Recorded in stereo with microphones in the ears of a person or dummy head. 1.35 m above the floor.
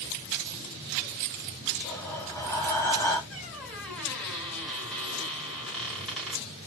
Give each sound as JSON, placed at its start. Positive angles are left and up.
{"t": 1.8, "sound": "breathing", "side_deg": 15, "distance_m": 2.0}
{"t": 3.3, "sound": "a squeak", "side_deg": 0, "distance_m": 2.5}